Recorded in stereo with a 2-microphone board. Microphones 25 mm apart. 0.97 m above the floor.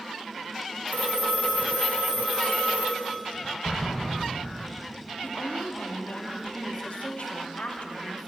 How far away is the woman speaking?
About 1.5 m.